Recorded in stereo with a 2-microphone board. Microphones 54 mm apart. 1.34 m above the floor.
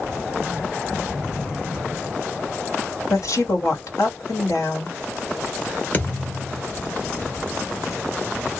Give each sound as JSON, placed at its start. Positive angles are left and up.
{"t": 3.1, "sound": "a woman speaking", "side_deg": 80, "distance_m": 1.6}
{"t": 5.9, "sound": "a thud", "side_deg": 35, "distance_m": 1.3}